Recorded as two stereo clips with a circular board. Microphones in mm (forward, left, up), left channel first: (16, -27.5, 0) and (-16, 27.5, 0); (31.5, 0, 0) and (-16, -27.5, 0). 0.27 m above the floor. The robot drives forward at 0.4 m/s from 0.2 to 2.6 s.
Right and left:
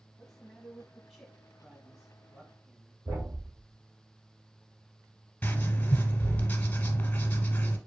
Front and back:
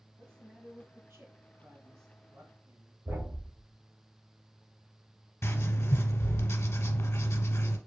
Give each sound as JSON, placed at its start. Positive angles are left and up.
{"t": 0.2, "sound": "a man speaking", "azimuth_deg": -140, "distance_m": 1.3}
{"t": 3.0, "sound": "a thud", "azimuth_deg": 165, "distance_m": 2.5}
{"t": 5.4, "sound": "writing", "azimuth_deg": 10, "distance_m": 0.9}